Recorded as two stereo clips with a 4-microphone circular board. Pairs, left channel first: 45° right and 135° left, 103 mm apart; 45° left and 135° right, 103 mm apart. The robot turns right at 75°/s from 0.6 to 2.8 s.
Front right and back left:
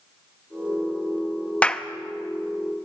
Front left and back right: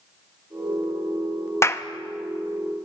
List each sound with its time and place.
1.6 s a clap: 20° left, 0.7 m; by 1.8 s 35° left, 0.7 m